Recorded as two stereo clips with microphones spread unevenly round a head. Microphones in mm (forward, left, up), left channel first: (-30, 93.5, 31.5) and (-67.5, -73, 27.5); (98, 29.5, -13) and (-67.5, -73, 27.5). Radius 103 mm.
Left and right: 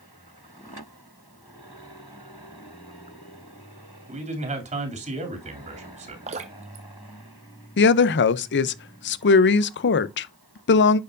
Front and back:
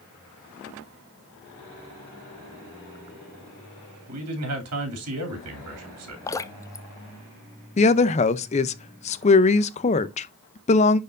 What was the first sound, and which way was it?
A man speaking, 150° right.